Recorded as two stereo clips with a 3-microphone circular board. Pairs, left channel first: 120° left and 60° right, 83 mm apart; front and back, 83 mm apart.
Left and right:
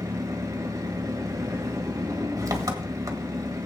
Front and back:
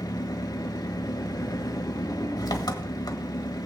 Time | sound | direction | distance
0.0 | an engine running | 25° right | 1.3 m